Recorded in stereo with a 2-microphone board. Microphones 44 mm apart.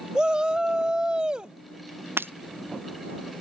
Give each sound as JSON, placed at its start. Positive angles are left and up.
{"t": 0.1, "sound": "a shout", "side_deg": -20}
{"t": 2.2, "sound": "breaking glass", "side_deg": -60}